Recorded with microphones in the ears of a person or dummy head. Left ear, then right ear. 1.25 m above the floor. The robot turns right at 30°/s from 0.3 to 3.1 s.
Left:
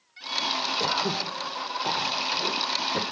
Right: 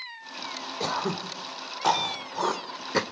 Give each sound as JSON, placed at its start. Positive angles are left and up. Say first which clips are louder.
{"t": 0.8, "sound": "throat clearing", "louder": "left 3 dB", "side_deg": -5, "distance_m": 1.8}